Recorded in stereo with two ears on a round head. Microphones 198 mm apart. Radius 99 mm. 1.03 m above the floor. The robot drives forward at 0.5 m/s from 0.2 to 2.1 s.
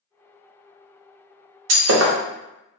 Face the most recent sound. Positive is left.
turn(degrees=-70)  # may be behind; listen again after turning